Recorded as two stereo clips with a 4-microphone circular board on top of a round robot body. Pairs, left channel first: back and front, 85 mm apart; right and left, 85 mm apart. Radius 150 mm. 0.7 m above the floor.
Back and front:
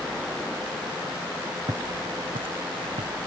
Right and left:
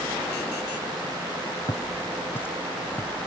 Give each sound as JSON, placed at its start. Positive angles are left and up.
{"t": 1.7, "sound": "footsteps", "azimuth_deg": -45}